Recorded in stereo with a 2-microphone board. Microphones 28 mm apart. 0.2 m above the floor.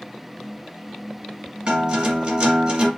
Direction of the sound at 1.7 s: 25° right (ahead or behind).